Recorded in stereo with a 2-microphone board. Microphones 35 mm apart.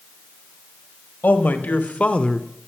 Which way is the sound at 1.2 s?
55° left (ahead or behind).